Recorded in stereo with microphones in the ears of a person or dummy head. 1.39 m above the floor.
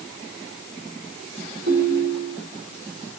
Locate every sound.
1.7 s a ringtone: 50° right (ahead or behind), 3.5 m